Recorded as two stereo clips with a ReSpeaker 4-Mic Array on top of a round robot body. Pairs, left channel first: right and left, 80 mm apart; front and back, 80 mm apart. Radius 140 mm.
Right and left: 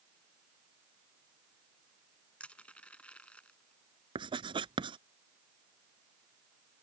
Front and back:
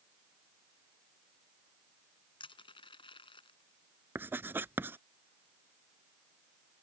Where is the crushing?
15° right.